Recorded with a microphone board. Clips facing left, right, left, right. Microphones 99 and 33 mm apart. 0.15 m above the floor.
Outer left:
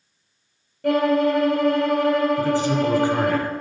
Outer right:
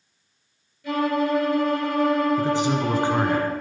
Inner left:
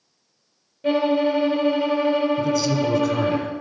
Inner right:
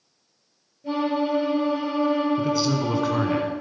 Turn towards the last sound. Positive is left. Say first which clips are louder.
# outer left 2 dB, inner left 2 dB
turn(degrees=-20)  # may be behind; listen again after turning